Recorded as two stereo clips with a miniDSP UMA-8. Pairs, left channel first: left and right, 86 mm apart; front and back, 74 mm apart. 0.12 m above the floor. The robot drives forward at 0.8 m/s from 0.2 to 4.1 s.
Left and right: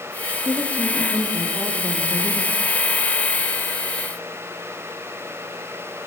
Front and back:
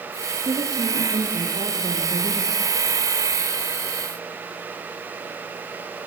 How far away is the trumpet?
No trumpet in this recording.